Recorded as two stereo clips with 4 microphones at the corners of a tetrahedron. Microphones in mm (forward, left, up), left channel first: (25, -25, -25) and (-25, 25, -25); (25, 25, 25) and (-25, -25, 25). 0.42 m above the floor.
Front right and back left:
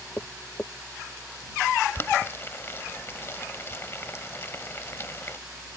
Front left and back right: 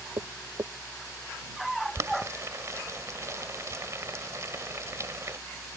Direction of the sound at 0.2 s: 110° right.